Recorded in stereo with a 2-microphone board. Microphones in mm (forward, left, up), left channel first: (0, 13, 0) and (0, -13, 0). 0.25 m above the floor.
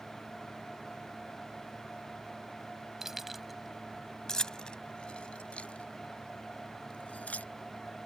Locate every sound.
3.0 s keys jangling: 20° right (ahead or behind); by 7.5 s 60° left (ahead or behind)